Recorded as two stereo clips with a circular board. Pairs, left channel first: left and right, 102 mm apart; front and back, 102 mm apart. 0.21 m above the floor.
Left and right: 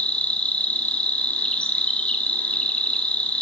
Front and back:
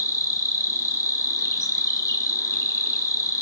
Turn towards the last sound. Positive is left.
turn(degrees=20)